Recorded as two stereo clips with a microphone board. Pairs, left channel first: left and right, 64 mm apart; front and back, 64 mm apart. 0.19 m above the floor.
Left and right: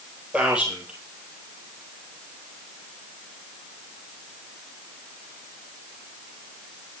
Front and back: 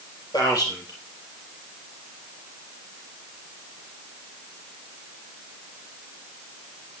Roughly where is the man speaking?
Ahead.